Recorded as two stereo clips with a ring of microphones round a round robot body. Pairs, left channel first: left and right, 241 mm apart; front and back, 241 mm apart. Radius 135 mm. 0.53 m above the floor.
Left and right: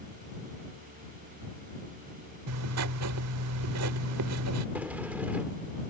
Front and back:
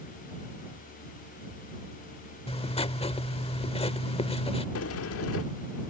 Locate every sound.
2.5 s writing: 65° right
4.8 s a sliding door: 5° right